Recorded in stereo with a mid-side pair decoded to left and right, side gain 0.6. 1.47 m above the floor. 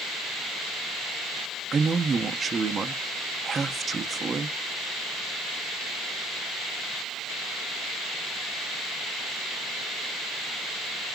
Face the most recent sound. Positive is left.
turn(degrees=-30)